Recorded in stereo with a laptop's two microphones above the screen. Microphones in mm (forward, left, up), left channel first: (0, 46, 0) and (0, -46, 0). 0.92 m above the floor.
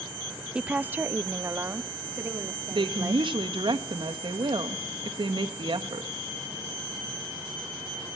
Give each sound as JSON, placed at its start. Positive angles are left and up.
{"t": 0.6, "sound": "a woman speaking", "side_deg": -10, "distance_m": 0.6}
{"t": 2.7, "sound": "a woman speaking", "side_deg": -60, "distance_m": 1.3}